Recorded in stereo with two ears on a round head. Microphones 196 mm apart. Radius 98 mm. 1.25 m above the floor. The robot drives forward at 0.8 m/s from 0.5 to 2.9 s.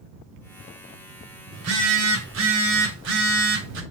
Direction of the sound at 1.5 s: 80° right.